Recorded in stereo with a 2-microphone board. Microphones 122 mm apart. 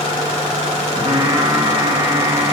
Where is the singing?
45° right (ahead or behind), 1.0 m.